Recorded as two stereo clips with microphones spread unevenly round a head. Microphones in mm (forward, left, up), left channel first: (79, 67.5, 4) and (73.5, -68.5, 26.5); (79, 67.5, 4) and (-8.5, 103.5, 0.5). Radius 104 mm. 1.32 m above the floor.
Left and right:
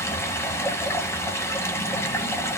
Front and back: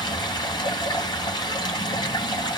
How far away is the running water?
About 2.5 m.